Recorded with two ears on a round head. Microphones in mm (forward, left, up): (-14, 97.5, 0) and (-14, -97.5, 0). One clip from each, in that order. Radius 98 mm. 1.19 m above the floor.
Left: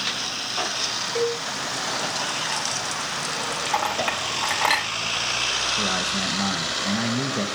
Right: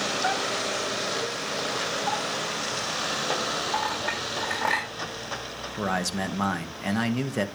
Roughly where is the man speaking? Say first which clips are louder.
Left 5 dB; right.